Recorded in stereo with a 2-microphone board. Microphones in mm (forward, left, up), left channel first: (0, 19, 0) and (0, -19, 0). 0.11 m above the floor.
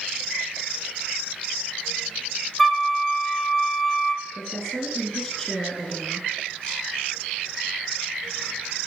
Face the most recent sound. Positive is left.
turn(degrees=10)  # may be behind; listen again after turning